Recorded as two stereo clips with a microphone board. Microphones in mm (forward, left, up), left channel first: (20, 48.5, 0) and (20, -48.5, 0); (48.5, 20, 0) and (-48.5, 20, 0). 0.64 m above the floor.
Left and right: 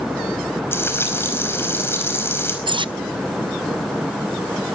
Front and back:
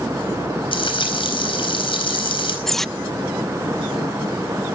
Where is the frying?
25° left, 4.5 m.